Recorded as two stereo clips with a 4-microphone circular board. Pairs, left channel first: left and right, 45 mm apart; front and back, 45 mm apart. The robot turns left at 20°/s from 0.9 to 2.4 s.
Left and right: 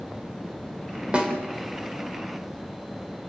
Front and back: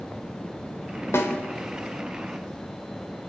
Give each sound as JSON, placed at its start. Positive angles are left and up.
{"t": 1.1, "sound": "a snare drum", "azimuth_deg": -20, "distance_m": 3.0}